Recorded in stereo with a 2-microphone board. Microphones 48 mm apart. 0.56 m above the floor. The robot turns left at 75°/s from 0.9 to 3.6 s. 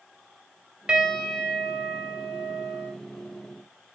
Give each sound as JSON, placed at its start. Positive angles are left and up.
{"t": 0.9, "sound": "a piano", "azimuth_deg": -160, "distance_m": 2.0}